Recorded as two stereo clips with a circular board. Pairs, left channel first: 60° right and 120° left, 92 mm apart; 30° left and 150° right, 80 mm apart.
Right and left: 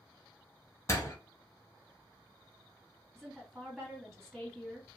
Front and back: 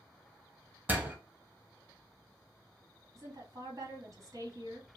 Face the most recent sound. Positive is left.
turn(degrees=-145)